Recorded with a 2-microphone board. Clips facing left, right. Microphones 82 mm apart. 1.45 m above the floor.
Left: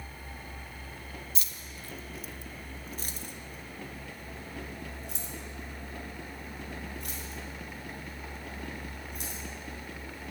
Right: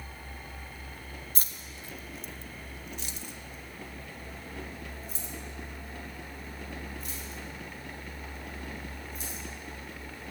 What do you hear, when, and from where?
1.4 s keys jangling: 45° right (ahead or behind), 0.6 m; by 9.4 s 70° left (ahead or behind), 4 m